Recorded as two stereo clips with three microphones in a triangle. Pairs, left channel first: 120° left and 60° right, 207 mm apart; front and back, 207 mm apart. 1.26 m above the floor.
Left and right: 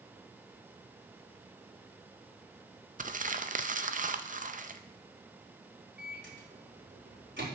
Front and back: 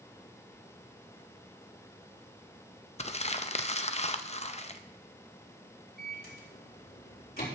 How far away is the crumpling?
About 0.6 m.